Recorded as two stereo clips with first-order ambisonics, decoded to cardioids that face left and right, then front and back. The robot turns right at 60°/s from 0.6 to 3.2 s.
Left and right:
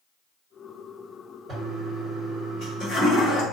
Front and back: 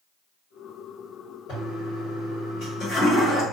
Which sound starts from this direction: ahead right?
A toilet flushing, at 1.5 s.